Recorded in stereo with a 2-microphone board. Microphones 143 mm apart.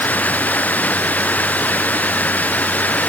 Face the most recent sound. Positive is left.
turn(degrees=10)  # may be behind; listen again after turning